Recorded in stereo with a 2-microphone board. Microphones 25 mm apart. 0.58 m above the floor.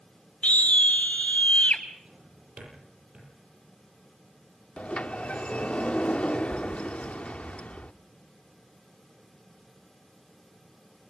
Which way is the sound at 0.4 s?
70° left (ahead or behind).